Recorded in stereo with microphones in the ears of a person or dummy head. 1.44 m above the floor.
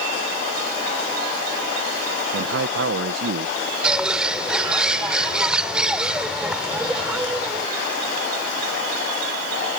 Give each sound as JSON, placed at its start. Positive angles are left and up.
{"t": 2.3, "sound": "a man speaking", "side_deg": -75}
{"t": 3.8, "sound": "a bird", "side_deg": -5}